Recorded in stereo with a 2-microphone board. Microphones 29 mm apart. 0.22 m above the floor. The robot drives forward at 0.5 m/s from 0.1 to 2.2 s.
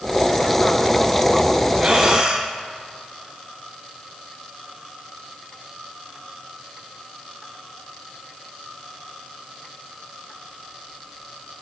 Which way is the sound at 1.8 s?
35° right (ahead or behind).